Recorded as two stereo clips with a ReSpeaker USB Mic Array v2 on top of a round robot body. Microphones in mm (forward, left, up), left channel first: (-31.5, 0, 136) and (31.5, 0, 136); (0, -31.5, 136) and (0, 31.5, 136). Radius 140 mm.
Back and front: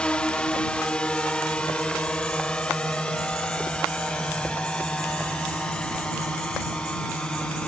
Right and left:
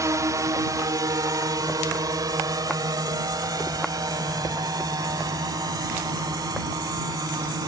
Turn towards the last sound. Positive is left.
turn(degrees=105)